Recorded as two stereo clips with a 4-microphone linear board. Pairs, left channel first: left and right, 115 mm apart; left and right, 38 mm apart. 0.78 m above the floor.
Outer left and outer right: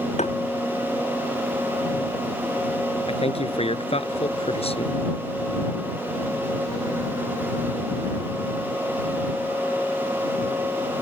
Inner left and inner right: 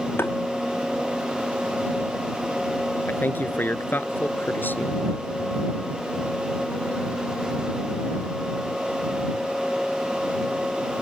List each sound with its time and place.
0.2 s tapping: 85° left
3.1 s a man speaking: 60° left (ahead or behind)